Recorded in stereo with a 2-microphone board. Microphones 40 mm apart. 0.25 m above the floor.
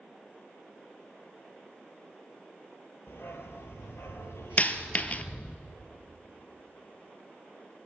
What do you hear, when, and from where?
3.1 s a dog barking: 65° left (ahead or behind), 1.9 m; by 5.6 s 60° left (ahead or behind), 2 m
4.6 s a dropped coin: 40° left (ahead or behind), 1.0 m